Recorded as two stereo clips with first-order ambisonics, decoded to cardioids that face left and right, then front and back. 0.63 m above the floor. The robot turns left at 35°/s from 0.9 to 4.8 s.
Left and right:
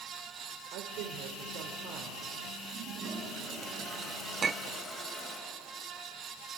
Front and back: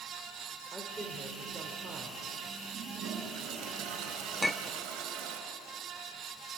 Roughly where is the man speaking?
Right.